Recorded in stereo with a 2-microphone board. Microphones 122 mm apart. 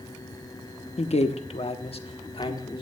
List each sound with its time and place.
1.0 s a man speaking: 55° left (ahead or behind), 0.8 m; by 2.8 s 45° left (ahead or behind), 1.6 m